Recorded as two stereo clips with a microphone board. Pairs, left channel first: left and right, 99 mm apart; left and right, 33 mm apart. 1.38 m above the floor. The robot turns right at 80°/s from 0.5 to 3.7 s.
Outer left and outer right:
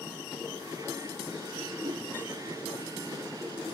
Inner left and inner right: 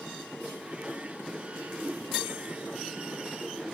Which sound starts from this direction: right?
A whoosh, at 1.8 s.